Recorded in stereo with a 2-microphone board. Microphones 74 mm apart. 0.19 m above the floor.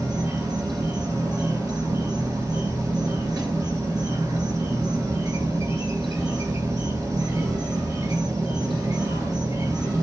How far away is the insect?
About 1.0 m.